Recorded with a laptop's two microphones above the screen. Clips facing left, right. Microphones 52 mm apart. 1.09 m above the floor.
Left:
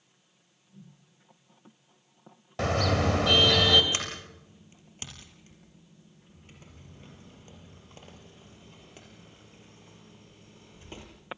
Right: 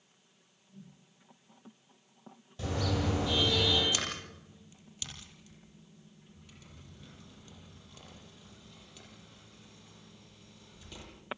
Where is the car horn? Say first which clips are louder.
Left 7 dB; 70° left (ahead or behind), 2.5 m.